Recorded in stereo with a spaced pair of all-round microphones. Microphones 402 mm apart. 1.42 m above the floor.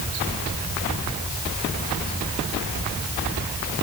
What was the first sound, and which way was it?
Only background noise.